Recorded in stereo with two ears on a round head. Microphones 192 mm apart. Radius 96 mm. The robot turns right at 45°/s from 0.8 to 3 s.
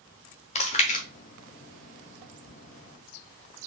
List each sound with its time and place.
0.6 s chewing: 30° left (ahead or behind), 0.7 m; by 1.1 s 40° left (ahead or behind), 0.7 m